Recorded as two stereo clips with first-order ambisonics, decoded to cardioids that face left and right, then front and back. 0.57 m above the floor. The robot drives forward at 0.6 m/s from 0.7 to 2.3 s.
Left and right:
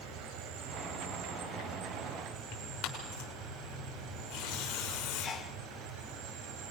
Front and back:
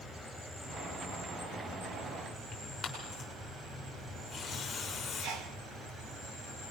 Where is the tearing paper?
70° left, 6.5 m.